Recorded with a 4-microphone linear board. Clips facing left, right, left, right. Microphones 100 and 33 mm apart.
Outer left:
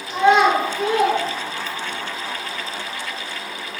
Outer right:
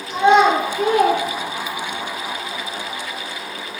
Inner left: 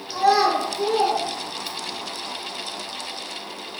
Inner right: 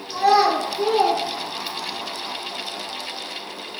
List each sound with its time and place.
0.1 s a child speaking: 15° right (ahead or behind), 0.8 m; by 2.0 s 70° right (ahead or behind), 1.0 m